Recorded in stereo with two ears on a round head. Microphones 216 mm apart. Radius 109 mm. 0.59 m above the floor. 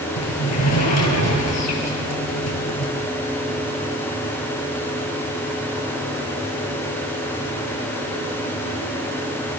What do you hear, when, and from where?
0.2 s a sliding door: 70° left (ahead or behind), 4 m